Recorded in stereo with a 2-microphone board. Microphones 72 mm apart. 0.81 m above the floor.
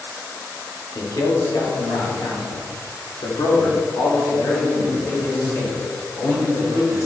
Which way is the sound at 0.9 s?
50° left (ahead or behind).